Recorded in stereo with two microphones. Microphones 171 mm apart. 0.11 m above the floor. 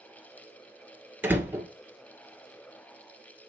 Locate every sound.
1.2 s a door slam: 10° right (ahead or behind), 1.4 m